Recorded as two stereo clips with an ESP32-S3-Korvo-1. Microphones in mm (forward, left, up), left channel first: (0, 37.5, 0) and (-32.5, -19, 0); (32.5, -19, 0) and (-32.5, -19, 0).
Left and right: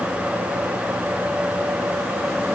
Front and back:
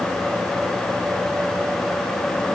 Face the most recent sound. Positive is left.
No sound to turn to.